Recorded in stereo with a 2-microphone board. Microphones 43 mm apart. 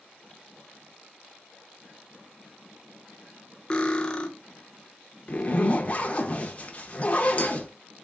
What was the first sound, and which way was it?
Cutlery clinking, 20° left (ahead or behind).